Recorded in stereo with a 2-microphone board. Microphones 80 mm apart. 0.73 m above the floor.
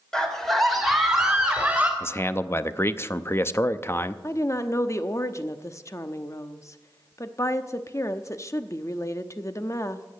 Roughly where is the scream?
Centre.